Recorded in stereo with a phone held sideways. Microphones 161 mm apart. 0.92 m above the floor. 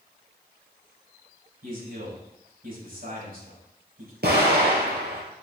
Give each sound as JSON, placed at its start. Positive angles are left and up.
{"t": 1.6, "sound": "a man speaking", "side_deg": -60, "distance_m": 5.5}
{"t": 4.2, "sound": "an explosion", "side_deg": -75, "distance_m": 3.0}